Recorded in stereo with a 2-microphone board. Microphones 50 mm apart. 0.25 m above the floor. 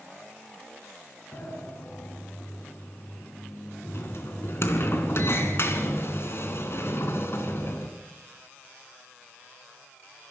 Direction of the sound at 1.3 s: 55° left (ahead or behind).